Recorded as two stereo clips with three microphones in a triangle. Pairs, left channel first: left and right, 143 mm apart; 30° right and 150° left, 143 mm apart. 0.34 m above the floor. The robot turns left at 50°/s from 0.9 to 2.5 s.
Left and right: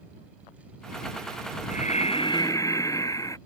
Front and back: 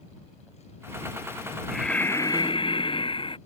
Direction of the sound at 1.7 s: 65° left.